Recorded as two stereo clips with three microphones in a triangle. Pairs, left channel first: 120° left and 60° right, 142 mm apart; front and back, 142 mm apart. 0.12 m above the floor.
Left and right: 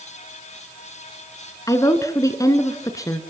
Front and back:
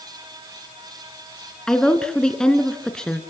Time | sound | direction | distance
1.7 | a woman speaking | 80° left | 1.6 m